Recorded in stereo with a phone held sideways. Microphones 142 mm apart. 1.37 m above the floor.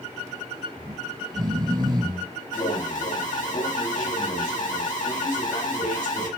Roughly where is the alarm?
Left.